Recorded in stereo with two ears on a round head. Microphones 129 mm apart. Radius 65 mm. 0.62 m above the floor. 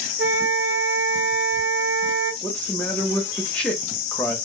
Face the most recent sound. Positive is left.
turn(degrees=10)  # may be behind; listen again after turning